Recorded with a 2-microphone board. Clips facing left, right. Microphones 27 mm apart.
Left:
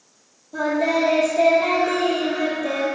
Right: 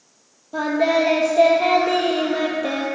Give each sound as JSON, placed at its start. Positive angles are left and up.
{"t": 0.5, "sound": "singing", "side_deg": -35, "distance_m": 1.6}